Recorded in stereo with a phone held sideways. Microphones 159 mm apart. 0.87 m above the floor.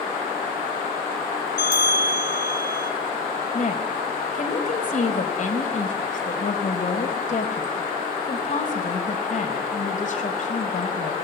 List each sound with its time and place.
1.6 s a bell: 75° right (ahead or behind), 4 m
3.5 s a woman speaking: 55° left (ahead or behind), 5 m